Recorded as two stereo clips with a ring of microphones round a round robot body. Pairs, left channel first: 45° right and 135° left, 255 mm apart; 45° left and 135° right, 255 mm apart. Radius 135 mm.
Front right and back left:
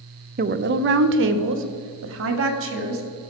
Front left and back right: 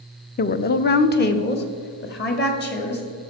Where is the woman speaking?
90° left, 0.6 m; by 3.2 s 95° left, 2.5 m.